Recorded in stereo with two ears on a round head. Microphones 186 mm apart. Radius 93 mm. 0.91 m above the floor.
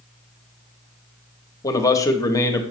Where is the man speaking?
15° left (ahead or behind), 0.9 m.